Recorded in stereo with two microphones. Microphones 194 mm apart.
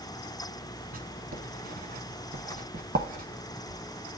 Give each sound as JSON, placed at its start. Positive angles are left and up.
{"t": 0.9, "sound": "writing", "side_deg": -50, "distance_m": 0.7}